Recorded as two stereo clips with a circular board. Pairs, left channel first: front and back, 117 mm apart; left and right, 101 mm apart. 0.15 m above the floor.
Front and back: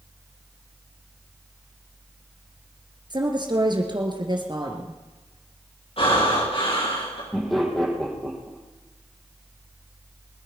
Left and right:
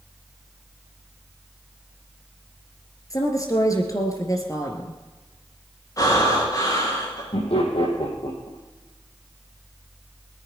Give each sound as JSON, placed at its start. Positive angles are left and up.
{"t": 3.1, "sound": "a woman speaking", "azimuth_deg": 140, "distance_m": 3.0}
{"t": 6.0, "sound": "breathing", "azimuth_deg": 35, "distance_m": 8.0}
{"t": 7.3, "sound": "laughter", "azimuth_deg": 90, "distance_m": 5.5}